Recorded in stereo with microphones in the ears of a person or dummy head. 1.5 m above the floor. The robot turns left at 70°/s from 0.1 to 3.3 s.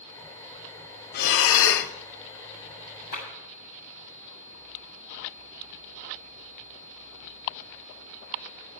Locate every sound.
1.1 s breathing: 115° left, 0.9 m; by 1.9 s 60° left, 0.9 m
3.1 s a clap: 50° left (ahead or behind), 7 m; by 3.3 s 60° left (ahead or behind), 7 m